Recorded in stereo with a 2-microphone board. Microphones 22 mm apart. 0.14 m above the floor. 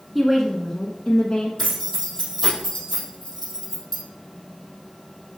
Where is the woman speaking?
5° right (ahead or behind), 1.2 m; by 1.5 s 35° left (ahead or behind), 1.2 m.